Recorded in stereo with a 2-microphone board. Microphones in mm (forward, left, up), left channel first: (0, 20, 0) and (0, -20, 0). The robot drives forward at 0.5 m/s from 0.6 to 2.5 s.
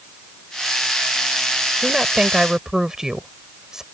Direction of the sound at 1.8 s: 15° right (ahead or behind).